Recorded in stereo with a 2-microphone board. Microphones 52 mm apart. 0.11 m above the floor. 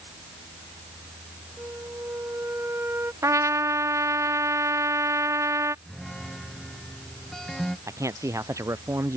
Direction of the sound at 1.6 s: 50° right (ahead or behind).